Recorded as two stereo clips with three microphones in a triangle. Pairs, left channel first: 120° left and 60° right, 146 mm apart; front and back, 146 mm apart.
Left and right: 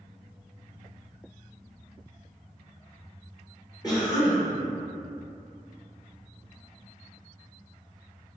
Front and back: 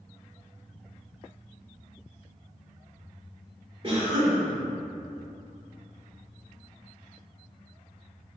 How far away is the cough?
About 1.0 m.